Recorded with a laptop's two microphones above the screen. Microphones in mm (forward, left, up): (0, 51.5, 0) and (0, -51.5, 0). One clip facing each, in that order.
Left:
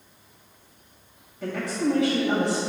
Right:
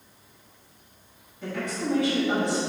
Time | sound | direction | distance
1.4 | a woman speaking | 75° left (ahead or behind) | 1.7 m